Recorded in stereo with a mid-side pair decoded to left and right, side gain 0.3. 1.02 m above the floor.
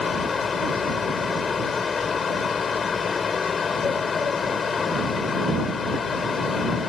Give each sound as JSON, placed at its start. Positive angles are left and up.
{"t": 0.0, "sound": "a fan", "azimuth_deg": 65}